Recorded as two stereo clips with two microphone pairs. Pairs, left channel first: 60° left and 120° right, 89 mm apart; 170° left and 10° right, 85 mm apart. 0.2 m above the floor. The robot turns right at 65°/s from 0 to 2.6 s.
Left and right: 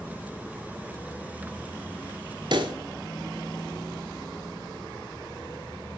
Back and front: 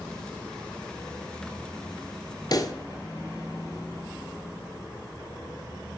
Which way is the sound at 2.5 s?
150° right.